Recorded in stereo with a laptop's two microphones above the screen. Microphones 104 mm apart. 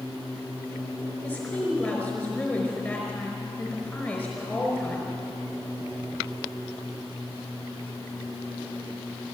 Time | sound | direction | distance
1.2 | a woman speaking | 10° left (ahead or behind) | 4 m